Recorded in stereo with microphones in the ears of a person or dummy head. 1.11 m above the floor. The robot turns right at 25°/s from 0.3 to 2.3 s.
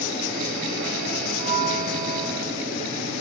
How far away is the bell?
About 4 m.